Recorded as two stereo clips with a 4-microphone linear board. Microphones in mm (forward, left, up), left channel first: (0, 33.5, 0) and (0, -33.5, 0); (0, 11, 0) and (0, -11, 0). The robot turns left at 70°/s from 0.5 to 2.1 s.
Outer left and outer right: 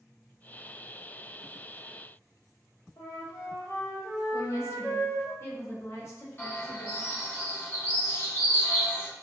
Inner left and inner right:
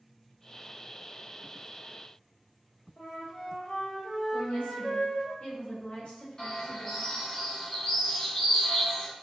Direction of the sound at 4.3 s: 45° left (ahead or behind).